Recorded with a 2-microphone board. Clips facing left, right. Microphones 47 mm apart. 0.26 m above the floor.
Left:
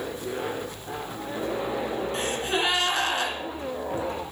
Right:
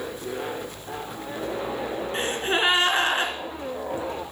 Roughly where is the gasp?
Right.